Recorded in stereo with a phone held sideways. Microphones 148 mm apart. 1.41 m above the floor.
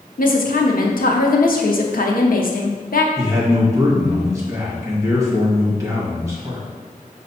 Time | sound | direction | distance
0.2 | a woman speaking | 75° left (ahead or behind) | 0.7 m
3.2 | a man speaking | 20° right (ahead or behind) | 1.5 m